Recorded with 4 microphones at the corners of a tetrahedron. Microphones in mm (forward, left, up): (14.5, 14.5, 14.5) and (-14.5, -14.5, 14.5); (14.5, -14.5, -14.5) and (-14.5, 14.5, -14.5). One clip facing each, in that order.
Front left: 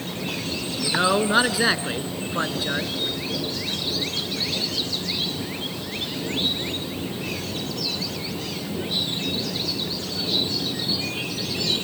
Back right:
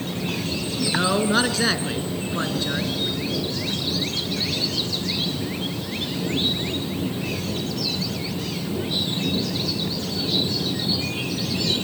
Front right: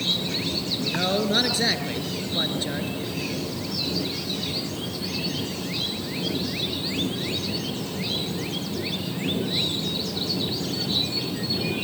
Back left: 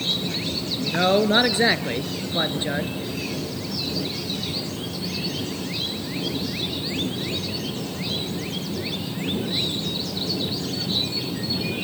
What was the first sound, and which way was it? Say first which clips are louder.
A man speaking: front left 2 dB, back left 6 dB; 110° left.